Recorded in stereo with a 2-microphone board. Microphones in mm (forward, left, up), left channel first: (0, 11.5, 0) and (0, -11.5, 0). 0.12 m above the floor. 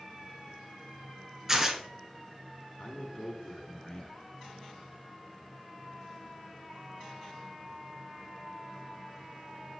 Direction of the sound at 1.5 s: 15° right (ahead or behind).